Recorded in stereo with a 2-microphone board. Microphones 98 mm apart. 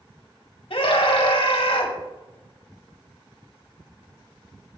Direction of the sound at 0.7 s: 70° left (ahead or behind).